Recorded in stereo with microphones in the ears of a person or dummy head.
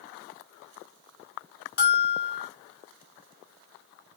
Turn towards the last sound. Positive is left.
turn(degrees=50)  # may be behind; listen again after turning